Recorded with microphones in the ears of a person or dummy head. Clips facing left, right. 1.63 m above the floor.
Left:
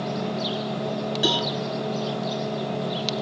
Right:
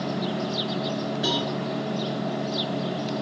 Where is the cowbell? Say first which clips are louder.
Left 3 dB; 50° left (ahead or behind), 1.6 m.